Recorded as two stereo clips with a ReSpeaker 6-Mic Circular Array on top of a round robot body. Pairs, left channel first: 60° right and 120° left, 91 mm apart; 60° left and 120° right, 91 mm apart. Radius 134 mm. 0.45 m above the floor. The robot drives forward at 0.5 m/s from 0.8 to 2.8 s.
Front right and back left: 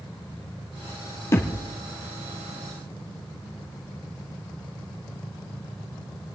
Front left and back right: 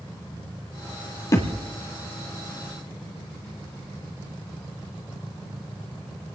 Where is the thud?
Straight ahead, 2.5 m; by 1.7 s 5° left, 2 m.